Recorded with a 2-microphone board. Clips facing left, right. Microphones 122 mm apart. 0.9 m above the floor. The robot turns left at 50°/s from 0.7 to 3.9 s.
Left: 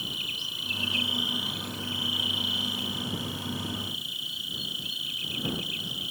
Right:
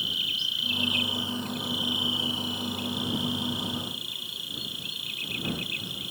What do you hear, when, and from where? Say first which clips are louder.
0.0 s an insect: right 1 dB; 45° left; by 6.1 s 115° right